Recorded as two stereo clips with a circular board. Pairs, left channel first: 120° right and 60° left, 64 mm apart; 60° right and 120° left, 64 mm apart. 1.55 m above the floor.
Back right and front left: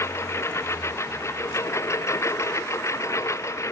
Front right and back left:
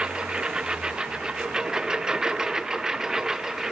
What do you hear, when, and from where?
0.0 s a lawn mower: 165° right; by 3.7 s 160° right